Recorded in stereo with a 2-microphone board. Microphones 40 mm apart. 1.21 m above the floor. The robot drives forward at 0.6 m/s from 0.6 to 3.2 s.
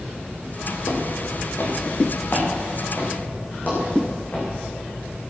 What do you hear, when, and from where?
0.8 s footsteps: 65° left (ahead or behind), 2.5 m; by 4.5 s 35° left (ahead or behind), 6 m